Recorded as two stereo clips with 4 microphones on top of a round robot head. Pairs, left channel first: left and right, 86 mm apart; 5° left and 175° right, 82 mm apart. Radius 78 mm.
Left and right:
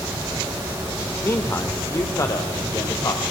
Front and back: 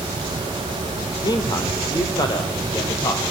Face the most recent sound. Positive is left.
turn(degrees=45)